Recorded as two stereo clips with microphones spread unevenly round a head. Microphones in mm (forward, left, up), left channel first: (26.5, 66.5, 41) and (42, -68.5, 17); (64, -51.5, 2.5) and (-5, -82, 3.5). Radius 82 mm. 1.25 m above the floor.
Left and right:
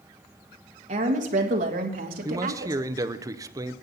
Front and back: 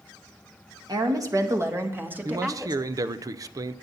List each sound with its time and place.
0.9 s a woman speaking: 125° right, 1.9 m; by 2.8 s 75° right, 2 m
2.2 s a man speaking: 130° right, 0.6 m